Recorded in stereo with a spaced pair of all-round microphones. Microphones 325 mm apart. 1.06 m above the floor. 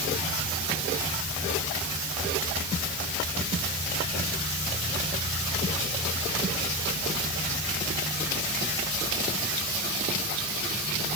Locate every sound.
Only background noise.